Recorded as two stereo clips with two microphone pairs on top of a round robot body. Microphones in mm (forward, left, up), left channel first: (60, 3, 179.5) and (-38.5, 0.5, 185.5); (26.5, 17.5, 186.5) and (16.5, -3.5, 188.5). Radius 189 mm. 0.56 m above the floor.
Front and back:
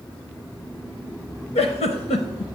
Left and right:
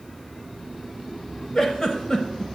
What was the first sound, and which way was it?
A giggle, 10° right.